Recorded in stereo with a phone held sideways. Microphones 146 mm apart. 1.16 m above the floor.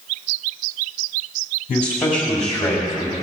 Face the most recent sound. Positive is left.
turn(degrees=0)  # may be behind; listen again after turning